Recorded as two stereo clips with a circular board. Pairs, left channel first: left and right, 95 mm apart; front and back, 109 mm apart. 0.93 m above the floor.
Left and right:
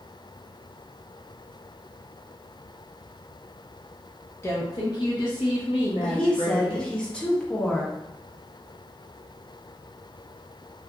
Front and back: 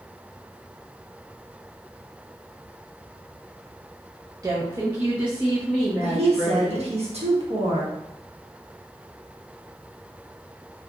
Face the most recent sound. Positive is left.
turn(degrees=170)